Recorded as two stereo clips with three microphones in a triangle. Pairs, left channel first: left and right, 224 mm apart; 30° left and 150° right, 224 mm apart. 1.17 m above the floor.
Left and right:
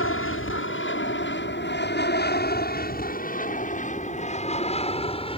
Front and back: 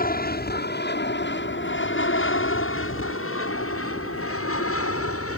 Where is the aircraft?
75° left; by 5.4 s 25° left.